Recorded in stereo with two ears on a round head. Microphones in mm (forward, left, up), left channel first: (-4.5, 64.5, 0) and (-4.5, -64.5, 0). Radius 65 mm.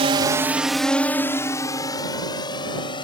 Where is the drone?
40° right (ahead or behind); by 3.0 s 35° left (ahead or behind).